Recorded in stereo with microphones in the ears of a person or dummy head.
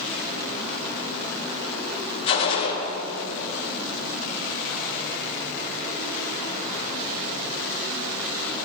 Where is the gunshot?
25° left (ahead or behind), 4 m.